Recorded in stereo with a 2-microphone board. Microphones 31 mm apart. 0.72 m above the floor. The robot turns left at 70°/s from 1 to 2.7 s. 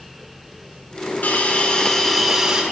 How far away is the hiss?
About 2 m.